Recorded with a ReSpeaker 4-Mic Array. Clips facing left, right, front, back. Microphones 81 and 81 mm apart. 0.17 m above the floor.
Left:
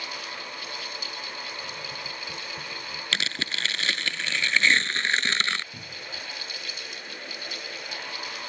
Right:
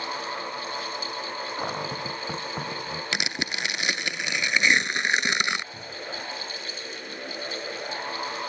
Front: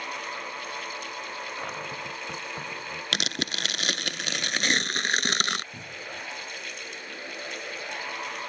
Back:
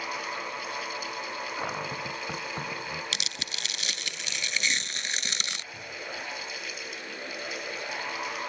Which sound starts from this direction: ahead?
Tearing paper, at 3.1 s.